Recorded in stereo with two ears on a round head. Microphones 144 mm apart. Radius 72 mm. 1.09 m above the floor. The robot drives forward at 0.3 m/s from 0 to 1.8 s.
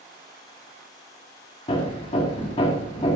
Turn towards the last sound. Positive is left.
turn(degrees=35)  # may be behind; listen again after turning